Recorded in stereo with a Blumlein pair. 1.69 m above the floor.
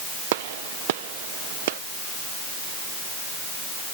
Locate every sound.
0.3 s a gunshot: 50° right